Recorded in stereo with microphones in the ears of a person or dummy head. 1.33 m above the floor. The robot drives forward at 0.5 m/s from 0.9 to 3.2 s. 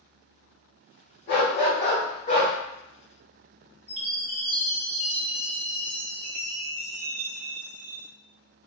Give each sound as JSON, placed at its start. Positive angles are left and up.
{"t": 1.3, "sound": "a dog barking", "side_deg": 40, "distance_m": 1.4}
{"t": 3.9, "sound": "a chime", "side_deg": 0, "distance_m": 0.6}